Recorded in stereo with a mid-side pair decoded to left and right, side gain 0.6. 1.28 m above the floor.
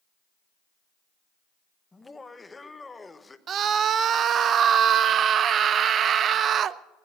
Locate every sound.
1.9 s laughter: 15° left, 1.1 m
3.5 s a scream: 45° right, 0.7 m